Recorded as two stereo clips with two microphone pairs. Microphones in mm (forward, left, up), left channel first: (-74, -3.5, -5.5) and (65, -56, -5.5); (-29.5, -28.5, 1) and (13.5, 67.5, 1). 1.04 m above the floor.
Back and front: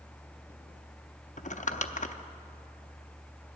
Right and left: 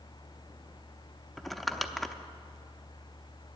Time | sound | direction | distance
1.4 | crumpling | 155° left | 0.6 m